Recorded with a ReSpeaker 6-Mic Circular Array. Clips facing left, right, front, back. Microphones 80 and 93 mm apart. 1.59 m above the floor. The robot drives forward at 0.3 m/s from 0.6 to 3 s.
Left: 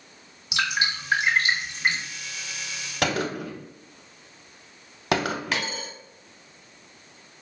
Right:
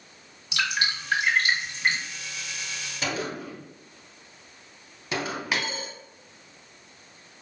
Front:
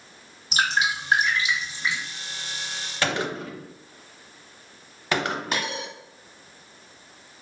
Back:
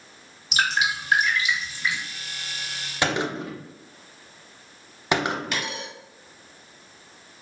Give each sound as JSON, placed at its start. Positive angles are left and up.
{"t": 0.5, "sound": "dripping", "azimuth_deg": 20, "distance_m": 1.5}
{"t": 3.0, "sound": "a gunshot", "azimuth_deg": 110, "distance_m": 0.5}
{"t": 5.5, "sound": "a dropped coin", "azimuth_deg": -10, "distance_m": 1.2}